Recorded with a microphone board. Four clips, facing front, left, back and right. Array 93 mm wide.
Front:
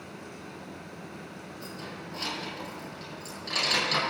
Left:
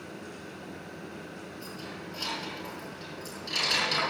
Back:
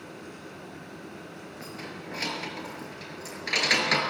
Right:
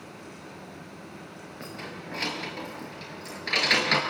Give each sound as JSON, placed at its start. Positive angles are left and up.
{"t": 1.6, "sound": "keys jangling", "azimuth_deg": -125, "distance_m": 8.0}